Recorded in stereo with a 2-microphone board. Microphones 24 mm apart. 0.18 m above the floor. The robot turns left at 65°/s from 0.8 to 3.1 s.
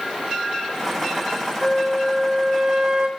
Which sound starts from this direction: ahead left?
A flute, at 1.6 s.